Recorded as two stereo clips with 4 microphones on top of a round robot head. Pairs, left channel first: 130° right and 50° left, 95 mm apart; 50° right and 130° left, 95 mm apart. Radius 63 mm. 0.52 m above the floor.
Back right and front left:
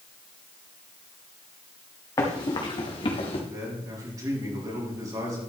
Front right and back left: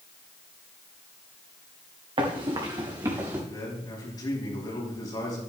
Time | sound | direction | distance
2.2 | running footsteps | 170° left | 3 m
3.5 | a man speaking | 5° right | 5 m